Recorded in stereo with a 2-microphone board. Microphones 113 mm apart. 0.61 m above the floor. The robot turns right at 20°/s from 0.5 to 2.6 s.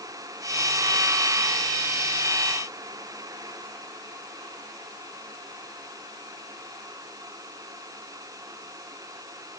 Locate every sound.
Only background noise.